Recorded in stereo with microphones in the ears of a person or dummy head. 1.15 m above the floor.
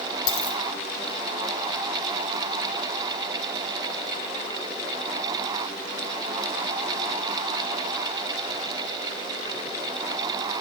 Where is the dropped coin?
25° left (ahead or behind), 6.5 m.